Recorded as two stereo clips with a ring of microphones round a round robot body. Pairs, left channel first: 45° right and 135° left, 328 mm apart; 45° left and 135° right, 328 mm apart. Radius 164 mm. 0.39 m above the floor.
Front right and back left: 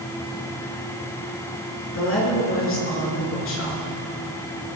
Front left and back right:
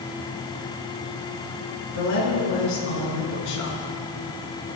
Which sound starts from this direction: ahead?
A woman speaking, at 1.9 s.